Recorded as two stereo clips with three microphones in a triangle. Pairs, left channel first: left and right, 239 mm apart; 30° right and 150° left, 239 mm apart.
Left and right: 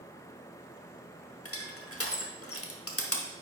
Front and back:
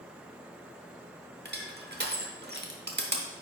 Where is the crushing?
105° left, 0.9 m.